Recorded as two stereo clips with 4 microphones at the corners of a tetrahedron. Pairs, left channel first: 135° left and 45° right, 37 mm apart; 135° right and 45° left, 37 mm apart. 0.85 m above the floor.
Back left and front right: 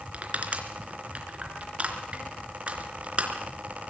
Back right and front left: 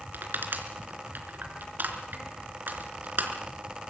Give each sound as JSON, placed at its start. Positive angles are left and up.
{"t": 0.1, "sound": "crushing", "azimuth_deg": 10, "distance_m": 3.5}